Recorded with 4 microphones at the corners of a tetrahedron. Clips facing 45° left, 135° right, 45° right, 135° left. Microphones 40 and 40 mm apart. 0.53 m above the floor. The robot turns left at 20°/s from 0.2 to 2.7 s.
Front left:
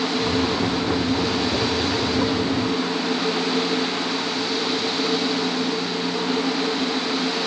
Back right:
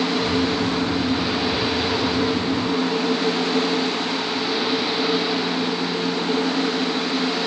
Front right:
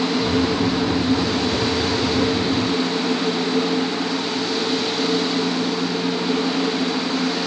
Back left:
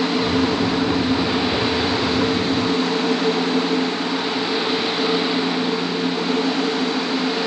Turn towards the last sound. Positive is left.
No sound to turn to.